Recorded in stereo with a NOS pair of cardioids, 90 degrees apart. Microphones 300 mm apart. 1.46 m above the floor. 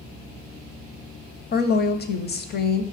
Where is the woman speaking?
35° left, 0.5 m.